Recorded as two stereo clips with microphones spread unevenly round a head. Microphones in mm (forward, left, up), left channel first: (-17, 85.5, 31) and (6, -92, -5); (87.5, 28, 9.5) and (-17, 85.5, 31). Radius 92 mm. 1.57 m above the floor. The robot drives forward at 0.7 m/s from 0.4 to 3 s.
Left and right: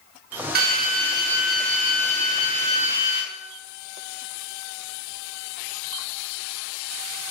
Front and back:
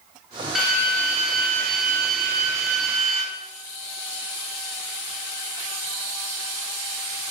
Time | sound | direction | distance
0.6 | a drill | 120° right | 4 m